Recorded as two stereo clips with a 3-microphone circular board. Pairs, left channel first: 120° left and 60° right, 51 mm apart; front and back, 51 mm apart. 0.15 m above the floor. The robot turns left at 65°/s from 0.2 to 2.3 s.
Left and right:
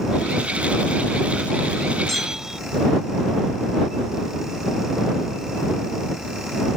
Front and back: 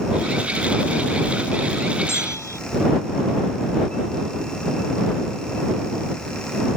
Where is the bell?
40° left; by 2.6 s 25° left.